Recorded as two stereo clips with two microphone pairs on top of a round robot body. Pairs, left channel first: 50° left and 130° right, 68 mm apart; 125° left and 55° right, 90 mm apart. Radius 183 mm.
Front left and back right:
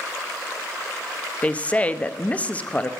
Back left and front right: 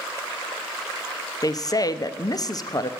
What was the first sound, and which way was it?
A woman speaking, 105° left.